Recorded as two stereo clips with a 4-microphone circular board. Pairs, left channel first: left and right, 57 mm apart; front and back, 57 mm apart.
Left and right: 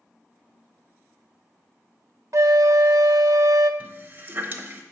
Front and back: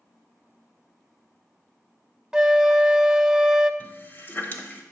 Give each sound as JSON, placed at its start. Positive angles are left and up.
{"t": 2.3, "sound": "a flute", "azimuth_deg": -105, "distance_m": 0.5}
{"t": 3.8, "sound": "a running tap", "azimuth_deg": -45, "distance_m": 1.0}